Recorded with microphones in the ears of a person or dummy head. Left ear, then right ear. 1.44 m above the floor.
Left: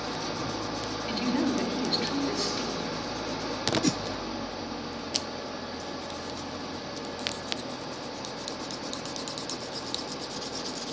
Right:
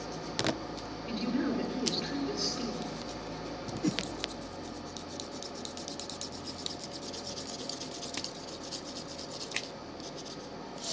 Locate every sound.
0.0 s an engine running: 50° left (ahead or behind), 1.1 m
1.1 s a woman speaking: 20° left (ahead or behind), 3.5 m
3.8 s a whoosh: 30° left (ahead or behind), 0.9 m